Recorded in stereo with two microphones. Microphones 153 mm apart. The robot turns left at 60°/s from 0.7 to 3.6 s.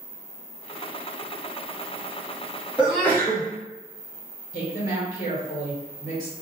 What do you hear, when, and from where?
2.8 s a sneeze: 170° right, 1.3 m; by 3.4 s 150° left, 1.3 m
4.5 s a woman speaking: 60° left (ahead or behind), 1.3 m